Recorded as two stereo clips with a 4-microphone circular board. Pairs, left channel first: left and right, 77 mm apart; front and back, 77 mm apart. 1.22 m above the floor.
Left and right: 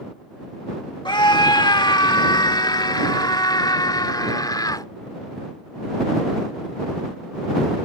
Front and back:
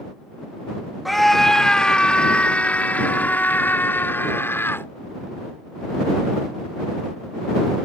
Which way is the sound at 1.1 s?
90° left.